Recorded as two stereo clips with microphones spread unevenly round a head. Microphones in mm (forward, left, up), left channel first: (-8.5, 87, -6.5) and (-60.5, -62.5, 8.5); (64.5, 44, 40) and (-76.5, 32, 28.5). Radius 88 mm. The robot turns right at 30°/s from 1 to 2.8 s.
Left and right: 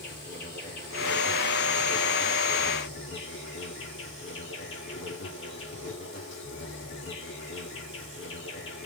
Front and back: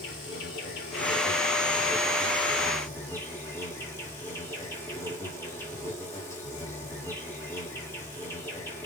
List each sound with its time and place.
0.0 s an insect: 25° left, 5.5 m; by 8.9 s 80° left, 5.5 m